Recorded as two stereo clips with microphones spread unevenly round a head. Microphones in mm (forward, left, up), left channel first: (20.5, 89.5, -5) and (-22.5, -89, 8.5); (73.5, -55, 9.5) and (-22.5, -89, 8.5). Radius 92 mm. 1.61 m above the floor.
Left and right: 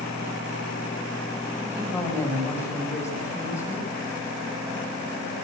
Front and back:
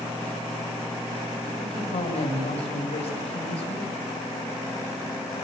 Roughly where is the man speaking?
Ahead.